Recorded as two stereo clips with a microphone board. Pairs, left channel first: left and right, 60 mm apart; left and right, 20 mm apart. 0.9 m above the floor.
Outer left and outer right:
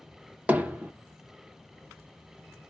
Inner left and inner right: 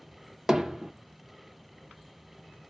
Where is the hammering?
25° right (ahead or behind), 0.7 m.